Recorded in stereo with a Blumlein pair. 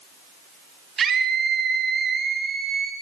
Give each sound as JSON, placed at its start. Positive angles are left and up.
{"t": 1.0, "sound": "a scream", "azimuth_deg": -20, "distance_m": 5.5}